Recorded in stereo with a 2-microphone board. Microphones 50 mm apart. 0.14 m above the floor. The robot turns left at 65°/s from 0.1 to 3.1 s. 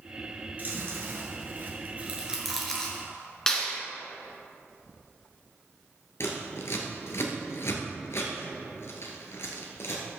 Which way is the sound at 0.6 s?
40° right (ahead or behind).